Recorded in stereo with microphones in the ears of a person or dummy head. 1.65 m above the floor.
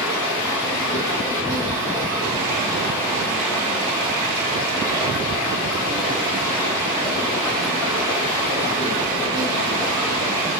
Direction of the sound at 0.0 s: 5° left (ahead or behind).